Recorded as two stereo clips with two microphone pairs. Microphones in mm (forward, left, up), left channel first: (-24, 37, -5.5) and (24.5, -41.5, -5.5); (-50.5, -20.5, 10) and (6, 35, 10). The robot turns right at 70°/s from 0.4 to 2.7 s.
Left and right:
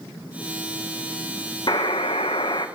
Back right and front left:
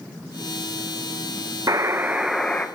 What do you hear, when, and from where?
1.7 s a buzzer: 90° left, 1.6 m; by 2.7 s 160° left, 1.6 m